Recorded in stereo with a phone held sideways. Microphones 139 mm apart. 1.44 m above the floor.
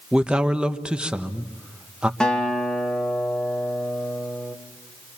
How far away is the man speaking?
About 1.2 m.